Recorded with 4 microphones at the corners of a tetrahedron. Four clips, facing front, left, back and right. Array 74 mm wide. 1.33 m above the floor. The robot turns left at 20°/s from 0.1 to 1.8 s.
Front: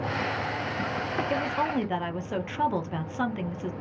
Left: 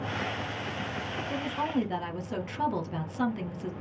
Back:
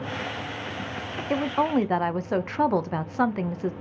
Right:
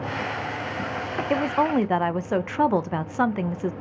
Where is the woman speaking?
105° right, 0.6 m; by 3.7 s 115° right, 0.6 m.